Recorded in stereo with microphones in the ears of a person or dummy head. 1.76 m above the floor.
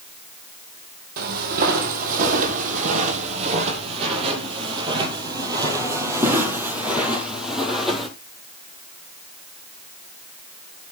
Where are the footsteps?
50° right (ahead or behind), 3.5 m; by 8.1 s 5° left (ahead or behind), 3.5 m.